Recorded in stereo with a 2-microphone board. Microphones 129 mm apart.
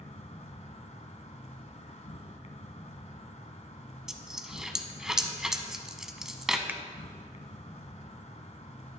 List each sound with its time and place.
0.0 s an insect: 60° left (ahead or behind), 1.4 m
4.1 s a dropped coin: 5° right (ahead or behind), 1.0 m
6.7 s a finger snap: 15° right (ahead or behind), 0.8 m